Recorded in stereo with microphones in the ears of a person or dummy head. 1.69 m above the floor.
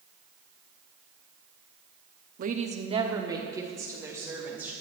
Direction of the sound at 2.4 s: 45° right (ahead or behind).